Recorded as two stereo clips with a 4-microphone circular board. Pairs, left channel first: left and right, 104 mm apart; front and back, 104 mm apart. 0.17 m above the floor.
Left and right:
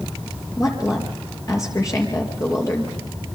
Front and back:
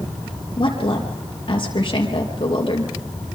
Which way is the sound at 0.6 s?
35° left.